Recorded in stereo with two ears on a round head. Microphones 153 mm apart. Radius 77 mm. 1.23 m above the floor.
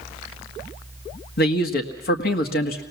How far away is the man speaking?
About 1.6 m.